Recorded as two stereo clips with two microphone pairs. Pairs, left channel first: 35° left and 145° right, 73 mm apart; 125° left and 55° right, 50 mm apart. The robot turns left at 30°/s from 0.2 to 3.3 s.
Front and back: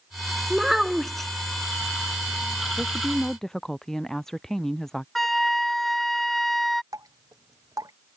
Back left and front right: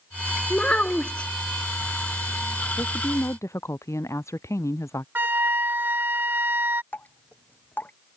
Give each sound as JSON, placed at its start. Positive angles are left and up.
{"t": 0.5, "sound": "a child speaking", "azimuth_deg": 135}
{"t": 2.8, "sound": "a woman speaking", "azimuth_deg": 135}
{"t": 5.2, "sound": "a flute", "azimuth_deg": -50}
{"t": 6.9, "sound": "dripping", "azimuth_deg": 180}